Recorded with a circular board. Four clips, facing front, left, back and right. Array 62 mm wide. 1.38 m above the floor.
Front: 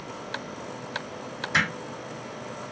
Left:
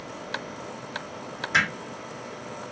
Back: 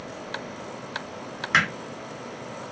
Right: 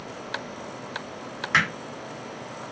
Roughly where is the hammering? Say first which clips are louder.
Right 1 dB, back 3 dB; behind right.